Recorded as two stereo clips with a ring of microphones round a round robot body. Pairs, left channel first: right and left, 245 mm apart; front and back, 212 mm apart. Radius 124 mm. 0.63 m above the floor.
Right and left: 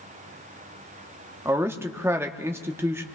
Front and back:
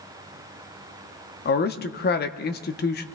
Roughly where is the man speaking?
Ahead.